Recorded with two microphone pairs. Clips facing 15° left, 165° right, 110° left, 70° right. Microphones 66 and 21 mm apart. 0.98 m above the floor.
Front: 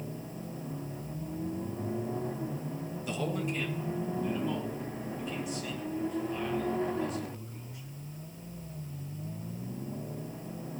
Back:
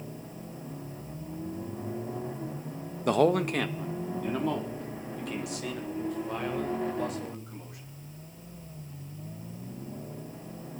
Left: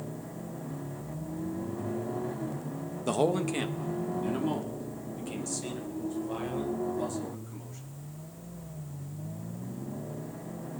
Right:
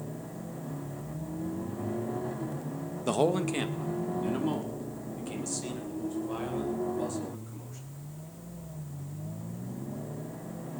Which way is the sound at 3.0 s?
150° right.